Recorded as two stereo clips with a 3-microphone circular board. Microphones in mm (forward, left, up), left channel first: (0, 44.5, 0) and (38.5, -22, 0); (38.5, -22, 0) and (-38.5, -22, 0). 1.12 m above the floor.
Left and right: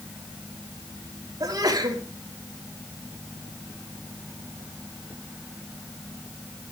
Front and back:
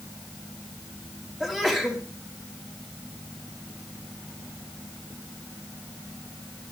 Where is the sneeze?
95° right, 3.5 m.